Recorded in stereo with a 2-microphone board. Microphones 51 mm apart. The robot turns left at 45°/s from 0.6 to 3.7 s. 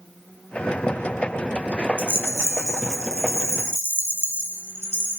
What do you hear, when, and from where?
2.0 s a rattle: 45° right, 0.6 m; by 5.2 s 120° right, 0.6 m